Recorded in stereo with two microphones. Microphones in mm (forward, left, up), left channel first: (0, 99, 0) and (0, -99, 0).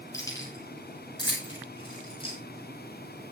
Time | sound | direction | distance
0.1 | keys jangling | 15° left (ahead or behind) | 8.5 m